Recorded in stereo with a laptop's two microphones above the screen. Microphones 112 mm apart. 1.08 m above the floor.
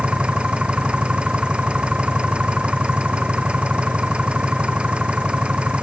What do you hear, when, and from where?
0.0 s an engine running: 10° right (ahead or behind)